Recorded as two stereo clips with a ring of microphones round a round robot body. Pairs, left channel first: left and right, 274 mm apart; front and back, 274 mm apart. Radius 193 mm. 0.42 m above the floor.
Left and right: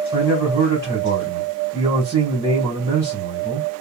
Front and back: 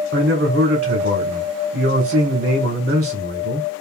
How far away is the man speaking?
About 1.8 m.